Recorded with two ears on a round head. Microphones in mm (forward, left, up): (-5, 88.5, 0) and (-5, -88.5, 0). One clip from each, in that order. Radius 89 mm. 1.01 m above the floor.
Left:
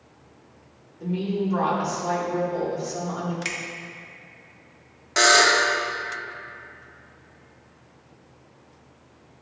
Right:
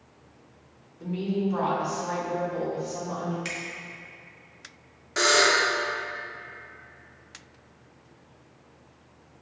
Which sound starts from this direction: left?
A buzzer, at 5.2 s.